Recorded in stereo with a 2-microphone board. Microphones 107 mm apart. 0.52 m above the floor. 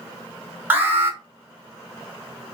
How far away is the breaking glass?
I don't hear breaking glass.